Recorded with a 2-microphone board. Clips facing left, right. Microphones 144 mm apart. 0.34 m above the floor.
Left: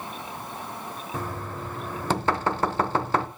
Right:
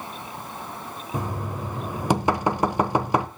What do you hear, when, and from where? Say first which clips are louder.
1.1 s knocking: right 4 dB; 15° right (ahead or behind), 0.7 m